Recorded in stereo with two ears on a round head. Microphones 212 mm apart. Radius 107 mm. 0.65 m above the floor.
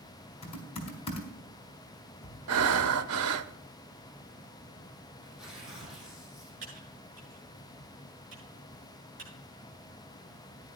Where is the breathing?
65° right (ahead or behind), 0.8 m.